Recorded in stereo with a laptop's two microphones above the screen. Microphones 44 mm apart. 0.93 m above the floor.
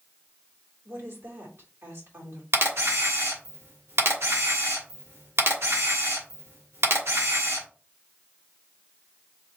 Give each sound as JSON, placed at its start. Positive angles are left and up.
{"t": 0.8, "sound": "a woman speaking", "side_deg": -70, "distance_m": 2.5}
{"t": 2.5, "sound": "a camera shutter", "side_deg": -90, "distance_m": 1.4}